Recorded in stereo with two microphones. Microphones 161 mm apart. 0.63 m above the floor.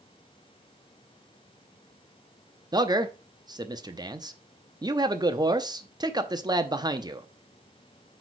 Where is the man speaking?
25° right (ahead or behind), 0.7 m.